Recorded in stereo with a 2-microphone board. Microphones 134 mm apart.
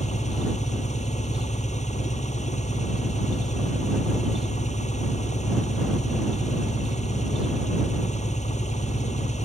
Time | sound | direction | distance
0.0 | an engine running | 60° left (ahead or behind) | ?